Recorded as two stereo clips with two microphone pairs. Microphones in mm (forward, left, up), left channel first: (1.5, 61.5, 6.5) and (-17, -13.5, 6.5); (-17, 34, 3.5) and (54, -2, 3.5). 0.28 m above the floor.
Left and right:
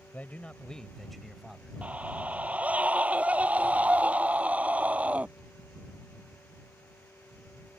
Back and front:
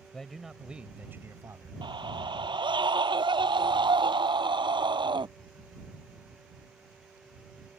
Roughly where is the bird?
No bird in this recording.